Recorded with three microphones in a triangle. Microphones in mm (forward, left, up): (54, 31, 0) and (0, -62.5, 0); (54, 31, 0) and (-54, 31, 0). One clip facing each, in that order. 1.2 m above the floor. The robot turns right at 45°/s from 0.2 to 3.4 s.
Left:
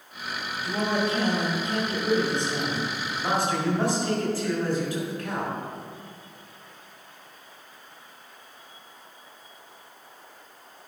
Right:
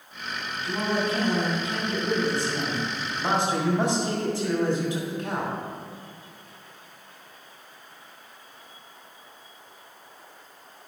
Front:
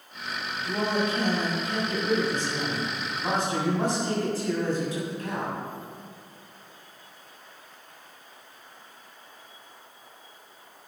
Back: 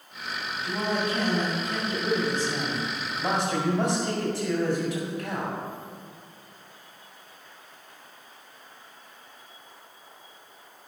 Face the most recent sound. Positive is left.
turn(degrees=170)